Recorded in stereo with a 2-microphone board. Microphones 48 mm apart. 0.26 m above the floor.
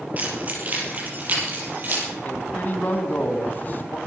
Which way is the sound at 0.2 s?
30° right (ahead or behind).